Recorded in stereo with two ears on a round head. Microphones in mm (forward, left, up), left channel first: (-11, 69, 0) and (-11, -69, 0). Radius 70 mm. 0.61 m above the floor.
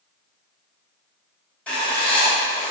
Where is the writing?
10° left (ahead or behind), 2.5 m.